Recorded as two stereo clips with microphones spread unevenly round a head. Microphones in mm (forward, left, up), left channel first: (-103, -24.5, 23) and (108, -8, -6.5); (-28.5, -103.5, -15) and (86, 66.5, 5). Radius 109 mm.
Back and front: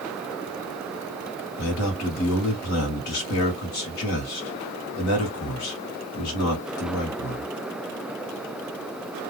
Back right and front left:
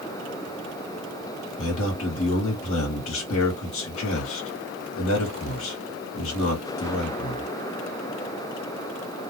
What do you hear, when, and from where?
1.6 s a man speaking: 160° right, 1.6 m